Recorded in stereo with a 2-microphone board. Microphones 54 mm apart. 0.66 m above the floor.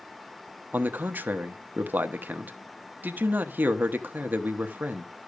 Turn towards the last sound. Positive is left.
turn(degrees=-35)  # may be behind; listen again after turning